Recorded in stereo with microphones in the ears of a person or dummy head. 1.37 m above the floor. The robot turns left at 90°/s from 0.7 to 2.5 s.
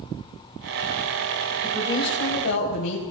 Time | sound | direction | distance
1.6 | a woman speaking | 175° right | 8 m